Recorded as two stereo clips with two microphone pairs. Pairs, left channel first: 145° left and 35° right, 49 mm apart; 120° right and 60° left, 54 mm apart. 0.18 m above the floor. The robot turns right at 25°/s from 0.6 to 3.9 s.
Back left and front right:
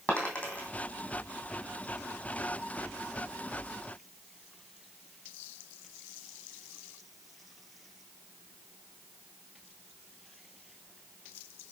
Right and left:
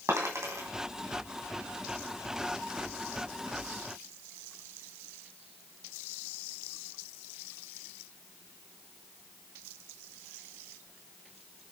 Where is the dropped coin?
85° left, 3.5 m.